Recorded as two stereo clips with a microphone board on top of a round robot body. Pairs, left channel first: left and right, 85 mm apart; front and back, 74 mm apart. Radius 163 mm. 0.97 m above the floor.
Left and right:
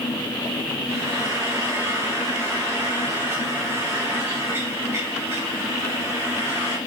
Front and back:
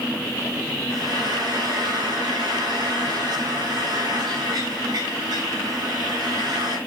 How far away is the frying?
About 2.5 m.